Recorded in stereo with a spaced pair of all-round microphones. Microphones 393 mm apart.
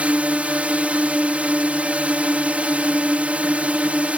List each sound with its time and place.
0.0 s a drone: 5° right (ahead or behind)